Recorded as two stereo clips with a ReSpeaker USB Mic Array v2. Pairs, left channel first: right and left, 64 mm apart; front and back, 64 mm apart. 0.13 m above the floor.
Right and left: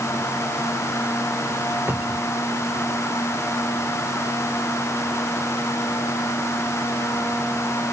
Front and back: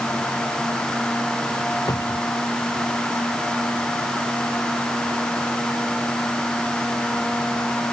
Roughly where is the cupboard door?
Ahead left.